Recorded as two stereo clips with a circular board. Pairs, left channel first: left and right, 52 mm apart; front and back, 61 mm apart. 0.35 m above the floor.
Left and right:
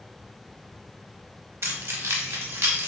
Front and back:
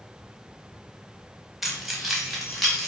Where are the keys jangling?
95° right, 0.9 m; by 2.9 s 90° right, 1.6 m.